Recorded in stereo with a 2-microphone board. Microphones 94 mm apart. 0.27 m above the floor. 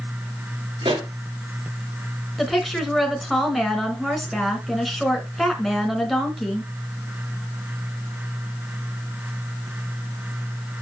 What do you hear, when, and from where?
0.8 s a pop: 70° right (ahead or behind), 4 m
2.4 s a woman speaking: centre (ahead or behind), 2.5 m